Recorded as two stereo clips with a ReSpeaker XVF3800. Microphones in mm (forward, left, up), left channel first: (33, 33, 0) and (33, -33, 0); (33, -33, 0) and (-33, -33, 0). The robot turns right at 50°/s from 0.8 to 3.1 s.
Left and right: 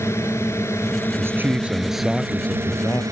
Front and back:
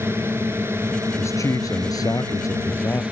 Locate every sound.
0.0 s a drone: 135° left; by 3.1 s 110° right
1.2 s a man speaking: 40° right; by 3.0 s 50° left